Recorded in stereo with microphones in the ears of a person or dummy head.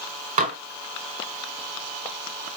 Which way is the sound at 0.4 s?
40° right (ahead or behind).